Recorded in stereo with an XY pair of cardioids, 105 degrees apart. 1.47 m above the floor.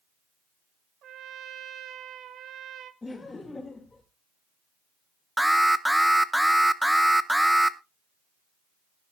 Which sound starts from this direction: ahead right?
A trumpet, at 1.0 s.